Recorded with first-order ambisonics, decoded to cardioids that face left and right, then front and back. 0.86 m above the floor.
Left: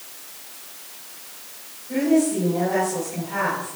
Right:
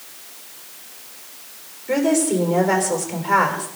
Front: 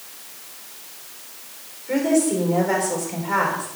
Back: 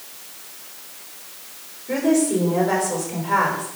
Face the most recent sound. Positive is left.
turn(degrees=-100)